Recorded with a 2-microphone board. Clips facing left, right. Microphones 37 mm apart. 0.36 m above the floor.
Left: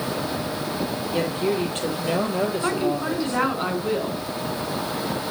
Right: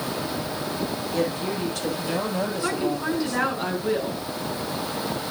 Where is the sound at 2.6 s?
15° left (ahead or behind), 4.5 m.